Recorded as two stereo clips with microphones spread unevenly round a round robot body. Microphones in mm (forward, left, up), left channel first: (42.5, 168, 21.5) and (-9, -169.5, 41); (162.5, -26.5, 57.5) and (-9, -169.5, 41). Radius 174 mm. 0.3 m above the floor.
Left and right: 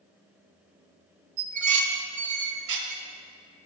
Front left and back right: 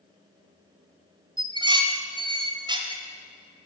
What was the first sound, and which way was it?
Dishes clattering, 80° right.